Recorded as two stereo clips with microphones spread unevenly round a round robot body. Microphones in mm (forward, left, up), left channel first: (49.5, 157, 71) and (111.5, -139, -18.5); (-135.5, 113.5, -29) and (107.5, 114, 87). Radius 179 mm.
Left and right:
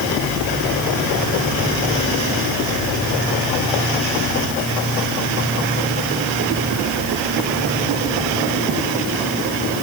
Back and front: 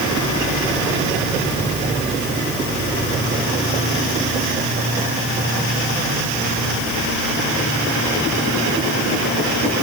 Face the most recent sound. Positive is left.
No sound to turn to.